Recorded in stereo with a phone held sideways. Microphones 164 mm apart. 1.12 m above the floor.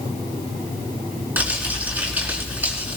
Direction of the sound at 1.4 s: 10° right (ahead or behind).